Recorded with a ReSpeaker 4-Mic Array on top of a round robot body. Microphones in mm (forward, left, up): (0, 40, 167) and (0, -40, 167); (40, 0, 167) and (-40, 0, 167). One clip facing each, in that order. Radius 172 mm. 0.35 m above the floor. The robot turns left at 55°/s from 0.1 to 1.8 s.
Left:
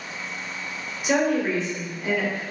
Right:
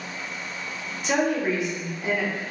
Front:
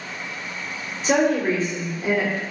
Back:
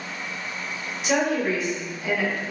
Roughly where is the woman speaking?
Ahead.